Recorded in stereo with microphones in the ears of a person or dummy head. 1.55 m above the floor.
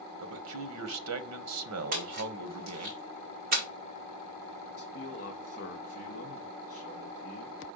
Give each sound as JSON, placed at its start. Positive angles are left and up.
{"t": 0.2, "sound": "a man speaking", "side_deg": -80, "distance_m": 1.0}
{"t": 1.9, "sound": "a splash", "side_deg": -45, "distance_m": 1.4}
{"t": 4.8, "sound": "a man speaking", "side_deg": 50, "distance_m": 1.9}